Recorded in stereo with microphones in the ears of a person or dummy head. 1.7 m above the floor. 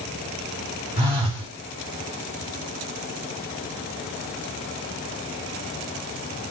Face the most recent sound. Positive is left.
turn(degrees=-35)  # may be behind; listen again after turning